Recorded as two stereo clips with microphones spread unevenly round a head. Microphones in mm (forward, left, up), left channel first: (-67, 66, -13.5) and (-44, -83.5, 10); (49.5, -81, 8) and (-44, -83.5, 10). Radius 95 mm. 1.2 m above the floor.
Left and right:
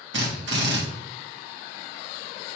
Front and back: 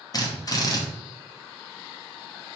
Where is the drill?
45° right, 2.5 m.